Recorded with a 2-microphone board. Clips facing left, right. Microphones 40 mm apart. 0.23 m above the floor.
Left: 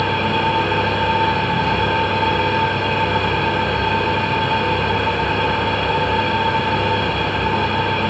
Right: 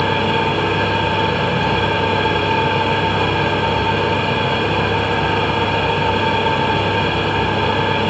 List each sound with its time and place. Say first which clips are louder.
0.0 s an engine running: right 1 dB; 80° right, 3 m